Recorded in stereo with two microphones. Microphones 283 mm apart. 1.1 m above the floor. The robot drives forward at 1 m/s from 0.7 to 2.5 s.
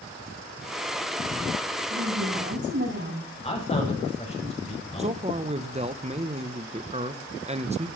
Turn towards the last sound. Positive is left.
turn(degrees=-25)  # may be behind; listen again after turning